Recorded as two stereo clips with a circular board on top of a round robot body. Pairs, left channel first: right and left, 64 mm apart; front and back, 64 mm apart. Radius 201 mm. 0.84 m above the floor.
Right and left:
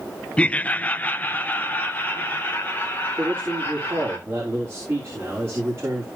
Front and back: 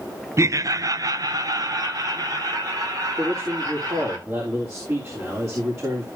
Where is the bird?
No bird in this recording.